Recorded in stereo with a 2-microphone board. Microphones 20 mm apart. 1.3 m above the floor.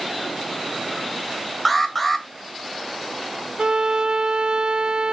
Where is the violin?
55° right (ahead or behind), 0.5 m.